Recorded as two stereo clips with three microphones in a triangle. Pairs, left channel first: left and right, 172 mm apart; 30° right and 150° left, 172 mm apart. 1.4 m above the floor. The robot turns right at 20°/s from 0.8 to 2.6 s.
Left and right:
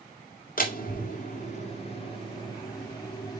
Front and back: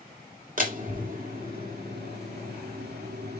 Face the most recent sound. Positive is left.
turn(degrees=155)